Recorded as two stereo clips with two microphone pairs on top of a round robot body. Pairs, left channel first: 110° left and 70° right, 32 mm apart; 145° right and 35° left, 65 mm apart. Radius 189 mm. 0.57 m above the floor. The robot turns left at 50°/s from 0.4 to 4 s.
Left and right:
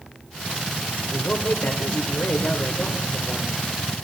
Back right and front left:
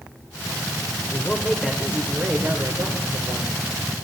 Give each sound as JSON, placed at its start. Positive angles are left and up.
{"t": 1.0, "sound": "a man speaking", "azimuth_deg": 155, "distance_m": 2.5}